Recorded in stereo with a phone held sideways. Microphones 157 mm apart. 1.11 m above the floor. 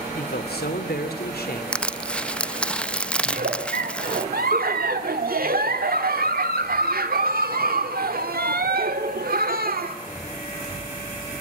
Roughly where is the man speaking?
Left.